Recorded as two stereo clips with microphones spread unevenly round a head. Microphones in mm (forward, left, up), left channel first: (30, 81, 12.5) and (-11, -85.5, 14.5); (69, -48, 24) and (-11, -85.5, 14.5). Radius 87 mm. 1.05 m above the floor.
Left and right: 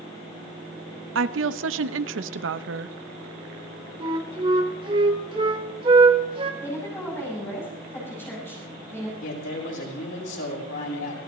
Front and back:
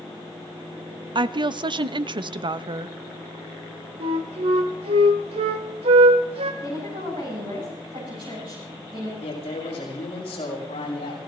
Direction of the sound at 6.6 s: 155° left.